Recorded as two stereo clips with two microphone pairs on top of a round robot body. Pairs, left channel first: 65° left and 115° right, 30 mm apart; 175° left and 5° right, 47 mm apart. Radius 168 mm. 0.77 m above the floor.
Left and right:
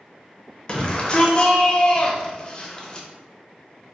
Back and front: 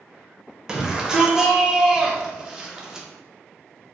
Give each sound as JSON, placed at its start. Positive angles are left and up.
{"t": 0.7, "sound": "a shout", "azimuth_deg": 80, "distance_m": 1.0}